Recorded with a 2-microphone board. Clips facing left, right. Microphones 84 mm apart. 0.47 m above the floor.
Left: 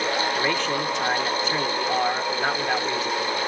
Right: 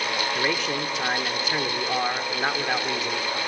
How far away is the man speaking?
About 1.5 m.